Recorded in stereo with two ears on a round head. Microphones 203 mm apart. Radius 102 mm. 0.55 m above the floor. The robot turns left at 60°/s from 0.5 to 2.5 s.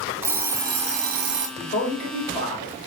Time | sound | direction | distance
0.2 | an alarm clock | 15° right | 0.7 m
1.6 | a man speaking | 95° left | 1.5 m